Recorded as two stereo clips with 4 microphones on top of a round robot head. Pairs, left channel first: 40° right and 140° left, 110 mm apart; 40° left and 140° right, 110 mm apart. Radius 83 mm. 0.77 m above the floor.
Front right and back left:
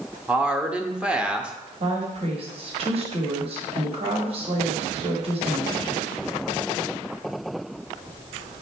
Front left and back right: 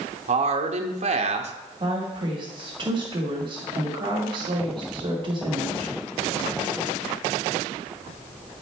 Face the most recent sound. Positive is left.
turn(degrees=175)